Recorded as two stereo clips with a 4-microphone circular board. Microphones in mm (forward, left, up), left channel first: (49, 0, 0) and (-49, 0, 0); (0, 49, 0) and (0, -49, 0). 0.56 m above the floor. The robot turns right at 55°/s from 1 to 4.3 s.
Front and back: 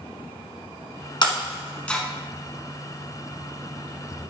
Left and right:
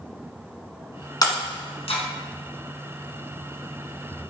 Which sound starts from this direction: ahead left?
Breaking glass, at 1.2 s.